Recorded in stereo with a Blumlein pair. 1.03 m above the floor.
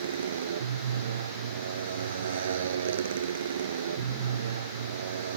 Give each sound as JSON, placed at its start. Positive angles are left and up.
{"t": 0.0, "sound": "a motorcycle", "azimuth_deg": -65}